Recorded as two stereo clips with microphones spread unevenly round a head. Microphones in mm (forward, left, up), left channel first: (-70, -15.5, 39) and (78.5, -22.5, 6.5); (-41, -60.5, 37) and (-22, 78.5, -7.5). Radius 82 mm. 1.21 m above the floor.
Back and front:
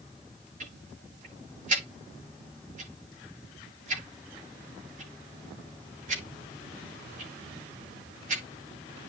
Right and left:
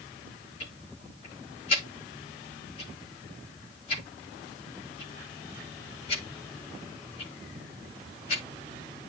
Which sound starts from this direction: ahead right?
Ticking, at 0.6 s.